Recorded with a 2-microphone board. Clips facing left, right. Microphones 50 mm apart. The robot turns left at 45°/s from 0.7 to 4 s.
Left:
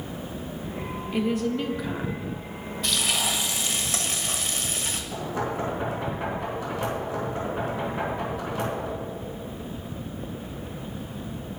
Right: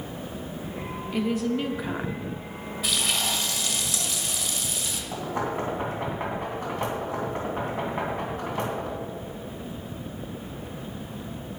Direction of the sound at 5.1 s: 40° right (ahead or behind).